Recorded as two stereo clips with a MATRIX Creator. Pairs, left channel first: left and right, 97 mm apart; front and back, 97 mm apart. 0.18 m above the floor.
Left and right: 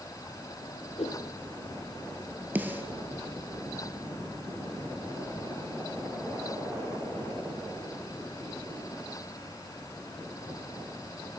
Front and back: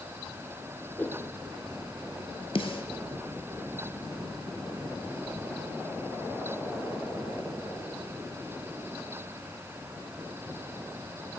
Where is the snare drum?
20° right, 1.1 m.